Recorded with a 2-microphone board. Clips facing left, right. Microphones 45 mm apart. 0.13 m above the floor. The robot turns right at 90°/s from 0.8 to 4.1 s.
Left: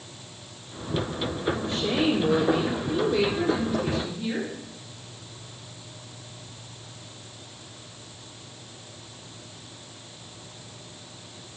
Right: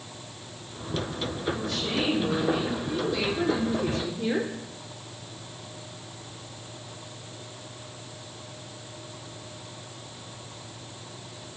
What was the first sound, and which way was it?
A woman speaking, 10° left.